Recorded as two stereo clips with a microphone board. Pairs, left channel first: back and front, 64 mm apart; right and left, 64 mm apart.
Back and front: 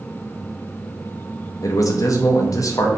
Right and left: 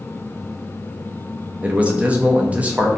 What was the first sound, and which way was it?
A man speaking, 160° left.